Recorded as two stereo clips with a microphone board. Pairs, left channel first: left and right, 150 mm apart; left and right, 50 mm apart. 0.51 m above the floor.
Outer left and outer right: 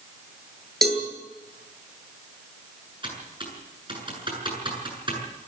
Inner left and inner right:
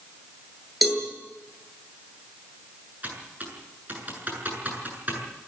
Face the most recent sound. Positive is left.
turn(degrees=-35)  # may be behind; listen again after turning